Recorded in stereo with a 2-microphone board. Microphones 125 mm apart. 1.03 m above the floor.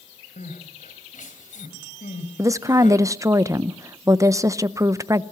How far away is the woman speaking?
About 0.7 m.